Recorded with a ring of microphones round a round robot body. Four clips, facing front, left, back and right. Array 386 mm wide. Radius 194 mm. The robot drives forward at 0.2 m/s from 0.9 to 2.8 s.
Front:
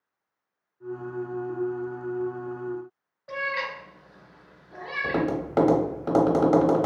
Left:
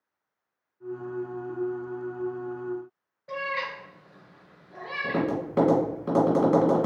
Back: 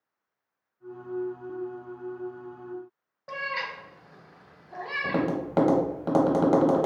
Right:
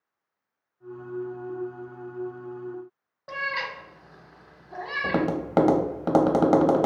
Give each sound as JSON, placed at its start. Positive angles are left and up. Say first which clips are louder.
{"t": 3.3, "sound": "a cat meowing", "louder": "even, front 3 dB", "azimuth_deg": -115, "distance_m": 0.7}
{"t": 5.0, "sound": "tapping", "louder": "right 1 dB, front 1 dB", "azimuth_deg": -95, "distance_m": 0.8}